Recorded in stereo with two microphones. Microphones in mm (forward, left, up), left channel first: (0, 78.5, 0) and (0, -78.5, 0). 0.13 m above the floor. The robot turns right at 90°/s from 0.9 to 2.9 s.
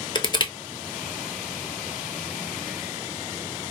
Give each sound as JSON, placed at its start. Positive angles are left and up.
{"t": 0.1, "sound": "crushing", "side_deg": 30, "distance_m": 0.5}